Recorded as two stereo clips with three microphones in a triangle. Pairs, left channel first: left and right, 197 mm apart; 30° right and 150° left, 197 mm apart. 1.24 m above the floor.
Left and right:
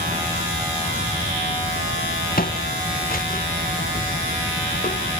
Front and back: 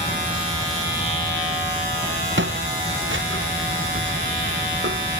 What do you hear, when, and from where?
2.4 s footsteps: 135° left